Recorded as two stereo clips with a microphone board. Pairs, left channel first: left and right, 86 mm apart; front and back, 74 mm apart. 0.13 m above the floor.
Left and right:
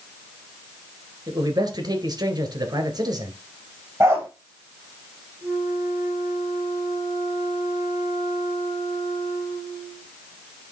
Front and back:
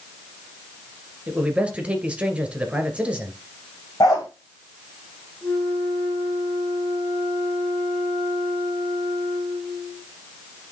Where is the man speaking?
105° right, 2 m.